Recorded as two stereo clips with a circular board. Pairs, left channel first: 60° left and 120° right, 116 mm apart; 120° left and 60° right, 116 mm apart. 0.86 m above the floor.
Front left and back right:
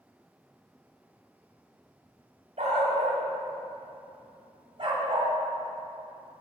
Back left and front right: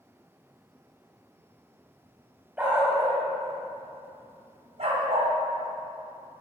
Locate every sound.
2.6 s a dog barking: 140° right, 1.8 m; by 5.3 s 70° right, 2 m